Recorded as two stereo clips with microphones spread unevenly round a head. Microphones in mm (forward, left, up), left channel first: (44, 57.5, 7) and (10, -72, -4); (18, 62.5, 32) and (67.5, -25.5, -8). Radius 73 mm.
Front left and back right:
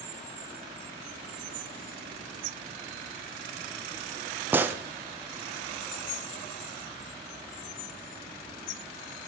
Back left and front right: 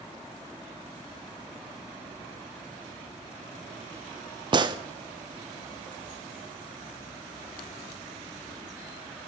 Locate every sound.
4.5 s a gunshot: 30° right, 0.5 m